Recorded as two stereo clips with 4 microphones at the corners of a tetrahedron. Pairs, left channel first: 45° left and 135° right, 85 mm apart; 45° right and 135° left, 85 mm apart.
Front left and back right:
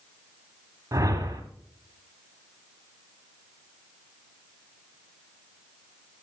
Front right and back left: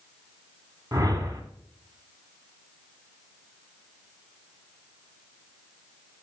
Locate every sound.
0.9 s a whoosh: 175° left, 1.3 m